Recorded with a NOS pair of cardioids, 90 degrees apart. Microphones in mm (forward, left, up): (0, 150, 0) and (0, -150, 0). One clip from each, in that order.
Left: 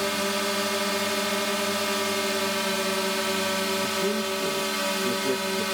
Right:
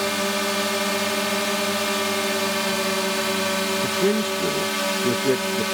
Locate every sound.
0.0 s a drone: 25° right
3.8 s a man speaking: 50° right